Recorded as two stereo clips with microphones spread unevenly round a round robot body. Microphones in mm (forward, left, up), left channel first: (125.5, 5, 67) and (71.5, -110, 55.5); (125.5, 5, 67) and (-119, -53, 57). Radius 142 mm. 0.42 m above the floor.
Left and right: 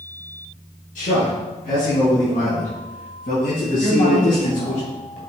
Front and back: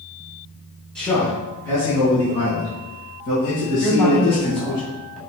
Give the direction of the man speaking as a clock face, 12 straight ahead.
9 o'clock.